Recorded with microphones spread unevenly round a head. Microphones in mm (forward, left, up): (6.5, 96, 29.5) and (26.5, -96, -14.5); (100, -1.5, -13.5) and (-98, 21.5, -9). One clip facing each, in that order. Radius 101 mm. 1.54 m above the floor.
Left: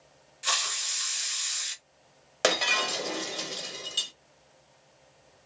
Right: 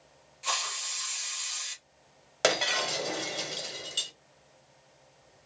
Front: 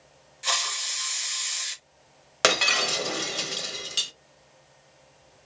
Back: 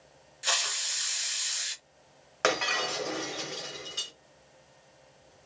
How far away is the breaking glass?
About 0.9 m.